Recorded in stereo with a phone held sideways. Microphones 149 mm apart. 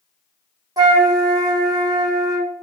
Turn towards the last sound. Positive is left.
turn(degrees=-25)  # may be behind; listen again after turning